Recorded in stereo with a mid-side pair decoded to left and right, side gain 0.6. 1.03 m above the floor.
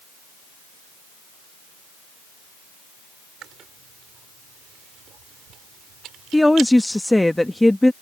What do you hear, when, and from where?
3.4 s chewing: 55° right
6.3 s a woman speaking: 5° left